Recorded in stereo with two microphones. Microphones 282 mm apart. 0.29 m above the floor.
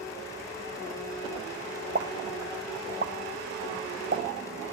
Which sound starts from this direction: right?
A pop, at 1.9 s.